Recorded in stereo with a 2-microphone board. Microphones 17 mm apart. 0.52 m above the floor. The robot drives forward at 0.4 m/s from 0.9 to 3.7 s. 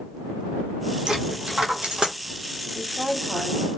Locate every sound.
1.1 s a dropped coin: 65° right (ahead or behind), 1.1 m; by 2.1 s 60° right (ahead or behind), 1.1 m
2.7 s a woman speaking: 5° right (ahead or behind), 1.6 m